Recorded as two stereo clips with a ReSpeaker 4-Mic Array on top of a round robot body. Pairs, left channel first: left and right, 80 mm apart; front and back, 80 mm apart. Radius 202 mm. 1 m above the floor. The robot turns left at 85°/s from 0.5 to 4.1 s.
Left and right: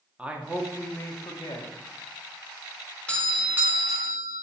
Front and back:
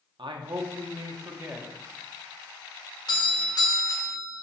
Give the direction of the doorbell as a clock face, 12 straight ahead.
11 o'clock.